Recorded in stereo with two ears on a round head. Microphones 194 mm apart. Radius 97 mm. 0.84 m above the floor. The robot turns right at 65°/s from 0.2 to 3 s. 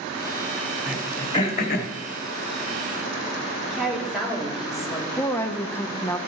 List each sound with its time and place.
0.9 s throat clearing: 10° right (ahead or behind), 1.0 m; by 1.9 s 60° left (ahead or behind), 1.0 m
3.6 s a woman speaking: centre (ahead or behind), 2 m
5.1 s a woman speaking: 10° left (ahead or behind), 0.6 m